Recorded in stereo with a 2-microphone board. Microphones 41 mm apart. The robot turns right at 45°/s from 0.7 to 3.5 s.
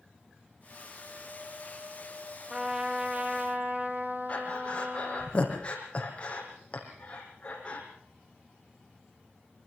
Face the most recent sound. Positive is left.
turn(degrees=30)  # may be behind; listen again after turning